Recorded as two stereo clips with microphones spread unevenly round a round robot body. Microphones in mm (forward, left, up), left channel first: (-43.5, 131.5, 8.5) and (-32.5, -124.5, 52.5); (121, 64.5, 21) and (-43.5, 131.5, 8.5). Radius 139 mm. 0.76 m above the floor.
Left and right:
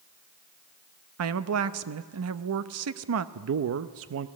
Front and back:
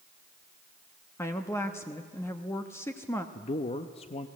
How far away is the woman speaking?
About 0.8 m.